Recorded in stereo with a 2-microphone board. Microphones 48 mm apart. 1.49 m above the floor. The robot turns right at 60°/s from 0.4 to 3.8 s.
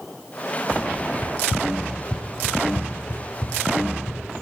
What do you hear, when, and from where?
1.2 s running footsteps: 40° right (ahead or behind), 2.0 m; by 4.2 s 60° left (ahead or behind), 4 m